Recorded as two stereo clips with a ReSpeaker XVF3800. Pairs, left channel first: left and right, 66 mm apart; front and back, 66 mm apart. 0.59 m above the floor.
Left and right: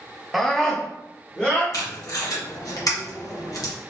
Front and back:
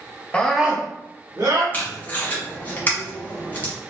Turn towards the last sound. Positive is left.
turn(degrees=65)